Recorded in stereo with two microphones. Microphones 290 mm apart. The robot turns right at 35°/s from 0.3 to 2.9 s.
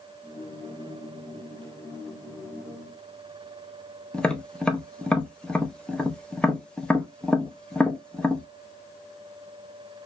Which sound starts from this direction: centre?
Tapping, at 4.1 s.